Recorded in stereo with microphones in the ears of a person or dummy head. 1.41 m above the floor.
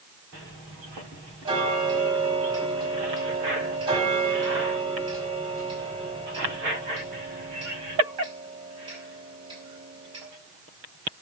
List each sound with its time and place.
1.4 s ticking: 30° right (ahead or behind), 4.5 m